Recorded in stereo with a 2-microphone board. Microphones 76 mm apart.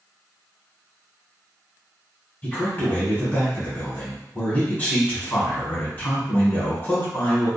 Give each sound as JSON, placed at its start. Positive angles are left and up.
{"t": 2.4, "sound": "a man speaking", "side_deg": 25, "distance_m": 1.6}